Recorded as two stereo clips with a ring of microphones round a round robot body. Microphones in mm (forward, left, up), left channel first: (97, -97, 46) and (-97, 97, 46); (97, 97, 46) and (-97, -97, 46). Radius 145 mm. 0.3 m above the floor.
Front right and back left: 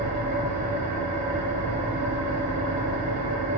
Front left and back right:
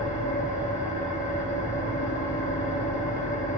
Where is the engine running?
110° left, 3.5 m.